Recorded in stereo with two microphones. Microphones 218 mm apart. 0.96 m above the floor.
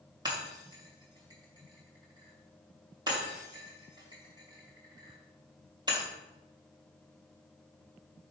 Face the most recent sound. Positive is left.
turn(degrees=-20)  # may be behind; listen again after turning